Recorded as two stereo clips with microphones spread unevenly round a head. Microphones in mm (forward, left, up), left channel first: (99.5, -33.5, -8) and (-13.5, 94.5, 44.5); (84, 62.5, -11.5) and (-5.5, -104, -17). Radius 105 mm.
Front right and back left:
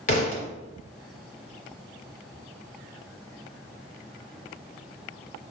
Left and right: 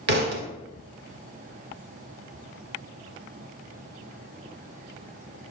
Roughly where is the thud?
Behind right.